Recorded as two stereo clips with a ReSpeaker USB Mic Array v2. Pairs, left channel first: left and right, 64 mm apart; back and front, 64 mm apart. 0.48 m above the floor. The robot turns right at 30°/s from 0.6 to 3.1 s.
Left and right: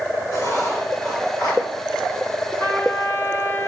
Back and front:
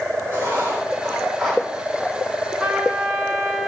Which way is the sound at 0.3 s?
55° left.